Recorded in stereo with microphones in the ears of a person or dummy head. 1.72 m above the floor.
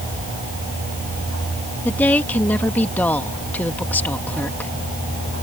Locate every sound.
1.9 s a woman speaking: 15° left (ahead or behind)